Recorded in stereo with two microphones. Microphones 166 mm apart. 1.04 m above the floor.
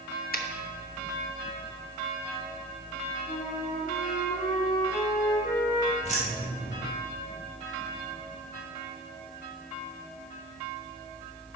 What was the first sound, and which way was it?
A finger snap, 65° left (ahead or behind).